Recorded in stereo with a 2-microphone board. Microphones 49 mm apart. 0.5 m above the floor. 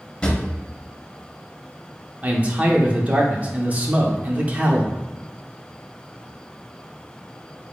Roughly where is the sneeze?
I don't hear a sneeze.